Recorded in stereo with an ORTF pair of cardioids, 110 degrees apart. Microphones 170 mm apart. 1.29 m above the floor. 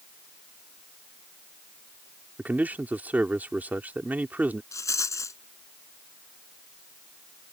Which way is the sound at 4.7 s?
20° left.